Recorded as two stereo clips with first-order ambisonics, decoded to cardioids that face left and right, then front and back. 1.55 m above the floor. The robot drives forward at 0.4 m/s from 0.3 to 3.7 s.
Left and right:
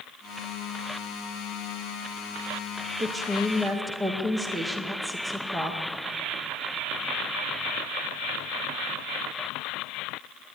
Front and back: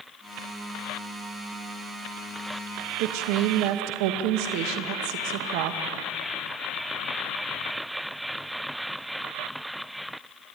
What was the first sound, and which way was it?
A woman speaking, 170° right.